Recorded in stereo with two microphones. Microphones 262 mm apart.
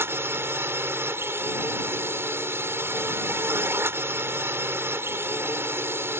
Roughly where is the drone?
Centre.